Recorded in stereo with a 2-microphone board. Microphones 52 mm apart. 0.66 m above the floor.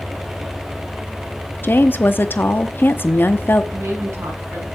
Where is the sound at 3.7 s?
70° right (ahead or behind), 5.5 m.